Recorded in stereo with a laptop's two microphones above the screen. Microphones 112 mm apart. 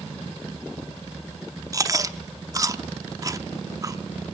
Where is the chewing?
30° right (ahead or behind), 0.7 m.